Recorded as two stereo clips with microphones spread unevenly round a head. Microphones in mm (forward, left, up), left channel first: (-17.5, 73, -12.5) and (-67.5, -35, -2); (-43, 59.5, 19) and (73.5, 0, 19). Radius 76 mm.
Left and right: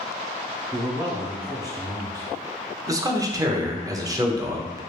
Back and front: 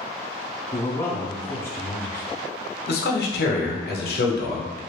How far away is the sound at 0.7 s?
About 0.7 m.